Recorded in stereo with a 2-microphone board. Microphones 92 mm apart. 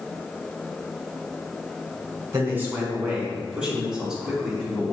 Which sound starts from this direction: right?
A man speaking, at 2.3 s.